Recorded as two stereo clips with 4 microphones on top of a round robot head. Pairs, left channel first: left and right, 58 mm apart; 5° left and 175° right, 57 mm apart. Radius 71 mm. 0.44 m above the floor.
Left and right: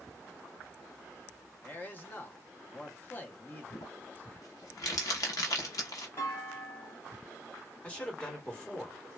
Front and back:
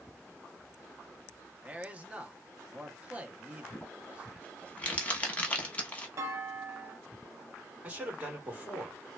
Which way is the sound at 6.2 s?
150° left.